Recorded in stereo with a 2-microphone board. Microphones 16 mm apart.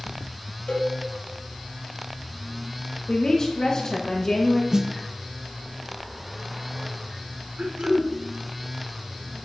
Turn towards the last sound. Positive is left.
turn(degrees=-80)